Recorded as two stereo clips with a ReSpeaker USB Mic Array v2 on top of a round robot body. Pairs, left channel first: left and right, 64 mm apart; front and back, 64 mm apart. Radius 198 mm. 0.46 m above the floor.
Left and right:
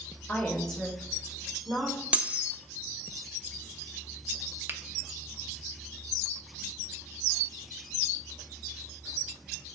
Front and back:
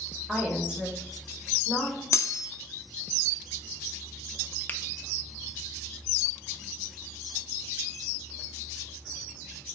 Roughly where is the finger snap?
Ahead right.